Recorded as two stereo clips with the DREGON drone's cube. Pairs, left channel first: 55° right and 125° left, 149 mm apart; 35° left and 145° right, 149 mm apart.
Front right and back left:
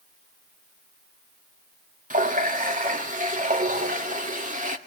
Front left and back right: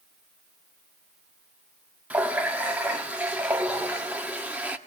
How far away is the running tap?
About 1.7 m.